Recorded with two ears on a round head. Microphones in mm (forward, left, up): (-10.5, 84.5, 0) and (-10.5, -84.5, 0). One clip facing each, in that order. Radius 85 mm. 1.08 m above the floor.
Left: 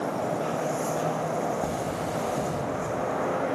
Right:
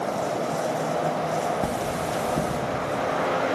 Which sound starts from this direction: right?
Cutlery clinking, at 1.6 s.